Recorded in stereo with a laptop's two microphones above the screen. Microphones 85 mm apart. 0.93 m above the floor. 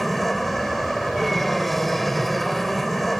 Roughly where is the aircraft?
Centre.